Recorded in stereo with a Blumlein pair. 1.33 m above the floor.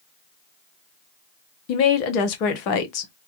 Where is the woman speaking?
40° left, 0.9 m.